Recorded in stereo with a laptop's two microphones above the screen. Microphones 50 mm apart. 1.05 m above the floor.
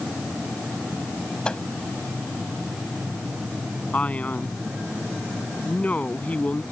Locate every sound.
1.4 s a microwave: 20° left (ahead or behind)
3.9 s a man speaking: 25° left (ahead or behind)